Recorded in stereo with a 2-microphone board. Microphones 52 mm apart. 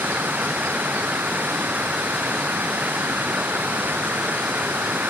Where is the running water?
35° right (ahead or behind).